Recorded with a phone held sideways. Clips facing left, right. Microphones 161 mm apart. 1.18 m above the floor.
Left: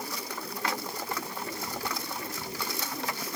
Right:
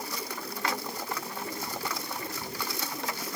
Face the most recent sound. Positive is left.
No sound to turn to.